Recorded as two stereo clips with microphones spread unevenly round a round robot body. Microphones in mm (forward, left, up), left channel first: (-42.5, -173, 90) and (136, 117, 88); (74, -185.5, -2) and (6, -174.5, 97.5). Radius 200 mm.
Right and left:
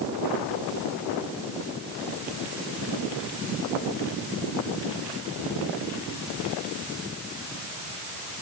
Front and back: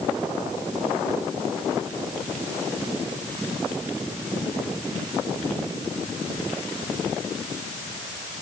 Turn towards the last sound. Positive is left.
No sound to turn to.